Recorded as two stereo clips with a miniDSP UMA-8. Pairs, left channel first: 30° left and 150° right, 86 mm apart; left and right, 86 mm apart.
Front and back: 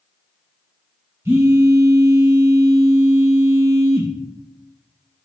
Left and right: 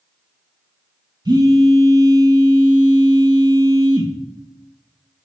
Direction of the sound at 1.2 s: 100° right.